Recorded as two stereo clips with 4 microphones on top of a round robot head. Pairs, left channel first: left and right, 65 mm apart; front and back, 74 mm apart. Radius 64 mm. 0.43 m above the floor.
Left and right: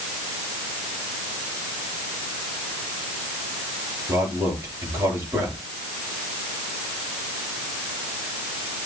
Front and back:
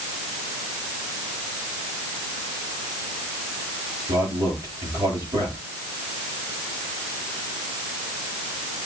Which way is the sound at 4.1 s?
140° right.